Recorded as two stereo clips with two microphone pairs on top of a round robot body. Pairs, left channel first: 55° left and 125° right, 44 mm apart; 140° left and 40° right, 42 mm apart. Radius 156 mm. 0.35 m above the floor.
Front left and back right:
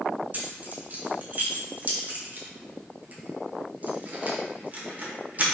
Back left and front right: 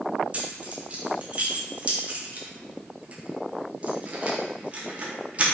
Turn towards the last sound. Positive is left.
turn(degrees=-90)